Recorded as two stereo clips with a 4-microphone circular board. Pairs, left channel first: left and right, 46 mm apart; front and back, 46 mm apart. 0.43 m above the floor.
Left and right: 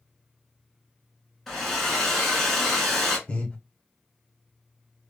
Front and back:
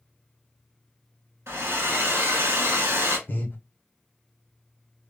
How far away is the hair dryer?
About 1.1 m.